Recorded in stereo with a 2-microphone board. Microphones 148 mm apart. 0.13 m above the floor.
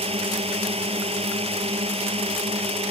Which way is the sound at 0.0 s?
40° right (ahead or behind).